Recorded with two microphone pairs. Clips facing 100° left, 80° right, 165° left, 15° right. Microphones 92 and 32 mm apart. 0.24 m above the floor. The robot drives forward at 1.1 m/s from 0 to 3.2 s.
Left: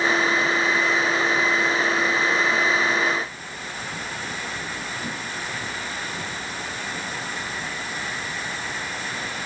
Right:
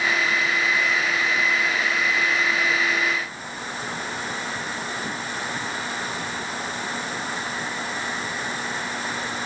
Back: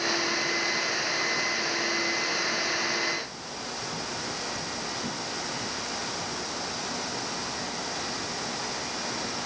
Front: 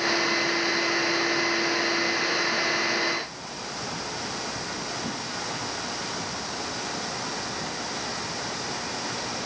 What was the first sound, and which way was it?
Only background noise.